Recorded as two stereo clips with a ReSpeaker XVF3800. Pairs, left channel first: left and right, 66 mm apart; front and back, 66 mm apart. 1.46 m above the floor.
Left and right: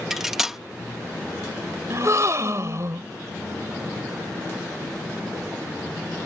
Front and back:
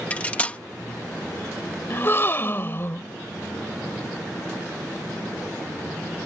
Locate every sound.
0.1 s cutlery clinking: 15° right
1.9 s a gasp: 50° right